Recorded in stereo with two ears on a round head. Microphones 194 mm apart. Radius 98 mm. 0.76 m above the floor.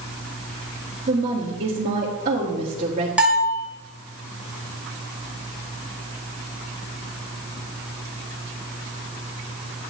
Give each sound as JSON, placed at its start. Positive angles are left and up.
{"t": 1.1, "sound": "a woman speaking", "side_deg": -40, "distance_m": 1.8}
{"t": 3.2, "sound": "a bell", "side_deg": -5, "distance_m": 2.0}